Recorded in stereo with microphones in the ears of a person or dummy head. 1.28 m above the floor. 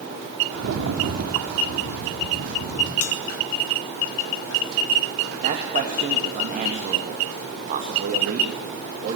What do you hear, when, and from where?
0.5 s a rattle: 85° right, 2.5 m
3.0 s a bell: 75° left (ahead or behind), 1.4 m
5.4 s a man speaking: 40° right (ahead or behind), 2.5 m